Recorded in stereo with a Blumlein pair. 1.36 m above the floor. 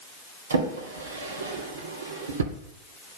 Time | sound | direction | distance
0.5 | a drawer | 70° right | 2 m